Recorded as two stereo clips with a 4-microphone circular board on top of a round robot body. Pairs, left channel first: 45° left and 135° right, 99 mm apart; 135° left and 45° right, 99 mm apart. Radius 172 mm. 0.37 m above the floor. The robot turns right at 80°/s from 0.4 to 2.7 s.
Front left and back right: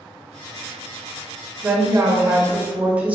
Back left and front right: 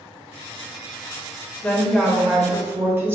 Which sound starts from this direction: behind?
A woman speaking, at 1.6 s.